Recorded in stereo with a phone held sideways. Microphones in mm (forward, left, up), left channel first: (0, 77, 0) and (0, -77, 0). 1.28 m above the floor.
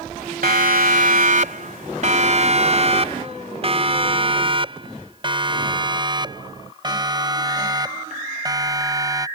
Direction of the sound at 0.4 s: 70° right (ahead or behind).